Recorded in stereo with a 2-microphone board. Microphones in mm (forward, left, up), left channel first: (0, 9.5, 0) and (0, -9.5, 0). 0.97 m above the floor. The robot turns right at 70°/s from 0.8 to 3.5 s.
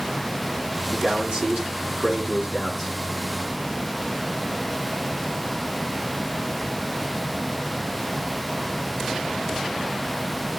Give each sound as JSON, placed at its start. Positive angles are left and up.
{"t": 0.9, "sound": "a man speaking", "azimuth_deg": -145, "distance_m": 9.0}